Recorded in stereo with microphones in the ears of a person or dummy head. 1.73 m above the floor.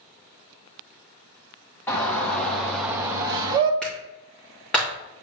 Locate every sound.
1.9 s a shout: 10° left (ahead or behind), 1.4 m; by 3.7 s 35° right (ahead or behind), 1.0 m
3.8 s a clap: centre (ahead or behind), 2.5 m